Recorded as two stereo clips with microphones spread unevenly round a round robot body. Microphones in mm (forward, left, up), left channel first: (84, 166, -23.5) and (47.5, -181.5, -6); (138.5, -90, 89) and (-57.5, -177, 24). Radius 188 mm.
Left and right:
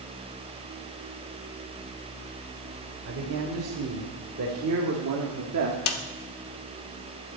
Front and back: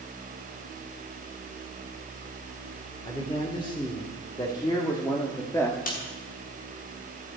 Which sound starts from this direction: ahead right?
A man speaking, at 3.0 s.